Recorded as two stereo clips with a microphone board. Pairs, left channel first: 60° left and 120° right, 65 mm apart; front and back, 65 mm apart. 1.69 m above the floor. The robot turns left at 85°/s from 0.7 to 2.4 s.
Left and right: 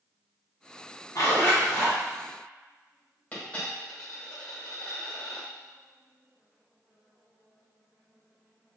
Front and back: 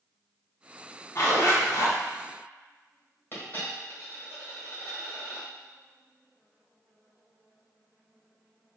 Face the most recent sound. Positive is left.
turn(degrees=20)